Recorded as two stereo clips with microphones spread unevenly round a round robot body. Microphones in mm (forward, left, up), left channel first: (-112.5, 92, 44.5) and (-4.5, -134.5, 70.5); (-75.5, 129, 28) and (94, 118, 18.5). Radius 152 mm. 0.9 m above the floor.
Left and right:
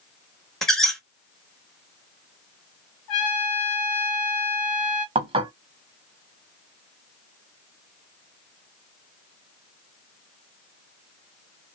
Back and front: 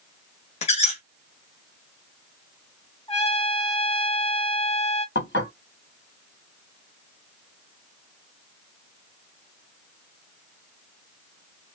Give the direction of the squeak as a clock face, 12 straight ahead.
5 o'clock.